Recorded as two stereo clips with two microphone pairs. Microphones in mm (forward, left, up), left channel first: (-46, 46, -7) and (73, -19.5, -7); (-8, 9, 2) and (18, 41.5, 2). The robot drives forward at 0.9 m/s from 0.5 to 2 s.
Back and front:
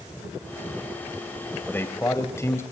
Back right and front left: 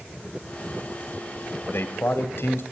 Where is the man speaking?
135° right, 2.5 m; by 2.6 s 140° right, 2.5 m.